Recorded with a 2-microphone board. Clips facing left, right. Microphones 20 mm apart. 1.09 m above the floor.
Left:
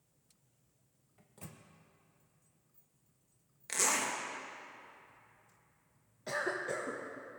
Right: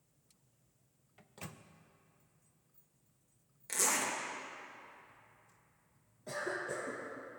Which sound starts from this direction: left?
A cough, at 6.3 s.